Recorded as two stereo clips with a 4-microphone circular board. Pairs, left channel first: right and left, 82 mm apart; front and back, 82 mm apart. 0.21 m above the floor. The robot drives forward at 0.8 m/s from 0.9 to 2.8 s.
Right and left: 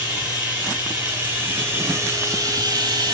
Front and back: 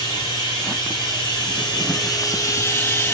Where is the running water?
20° left, 2 m; by 3.1 s 60° left, 0.8 m.